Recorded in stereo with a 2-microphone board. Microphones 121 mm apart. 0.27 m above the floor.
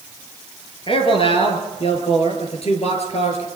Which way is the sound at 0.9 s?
50° left (ahead or behind).